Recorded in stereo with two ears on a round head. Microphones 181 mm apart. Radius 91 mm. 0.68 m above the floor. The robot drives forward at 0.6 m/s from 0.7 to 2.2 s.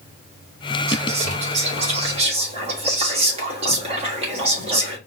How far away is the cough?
No cough in this recording.